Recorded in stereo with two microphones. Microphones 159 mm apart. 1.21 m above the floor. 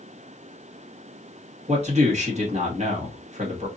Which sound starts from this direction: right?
A man speaking, at 1.7 s.